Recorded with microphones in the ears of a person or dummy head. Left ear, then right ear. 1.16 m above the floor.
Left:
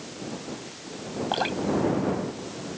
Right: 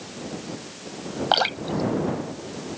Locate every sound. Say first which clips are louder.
1.3 s dripping: right 4 dB; 50° right (ahead or behind)